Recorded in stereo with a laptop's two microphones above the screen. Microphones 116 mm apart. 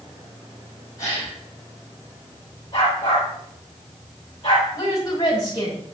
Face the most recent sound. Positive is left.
turn(degrees=35)  # may be behind; listen again after turning